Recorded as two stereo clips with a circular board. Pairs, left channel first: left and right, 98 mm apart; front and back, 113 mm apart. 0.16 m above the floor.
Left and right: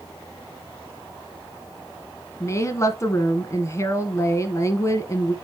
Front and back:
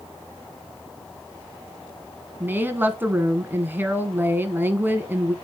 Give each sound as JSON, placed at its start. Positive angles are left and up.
{"t": 2.4, "sound": "a woman speaking", "azimuth_deg": 120, "distance_m": 1.2}